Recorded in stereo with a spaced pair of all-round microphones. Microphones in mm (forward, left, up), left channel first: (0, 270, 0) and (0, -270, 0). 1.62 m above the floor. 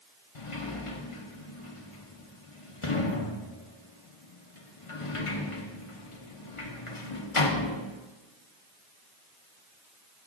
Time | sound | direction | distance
0.3 | a sliding door | 70° left (ahead or behind) | 1.0 m